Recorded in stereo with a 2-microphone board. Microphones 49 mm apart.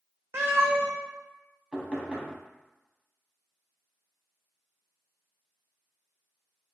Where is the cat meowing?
60° right (ahead or behind), 0.8 m.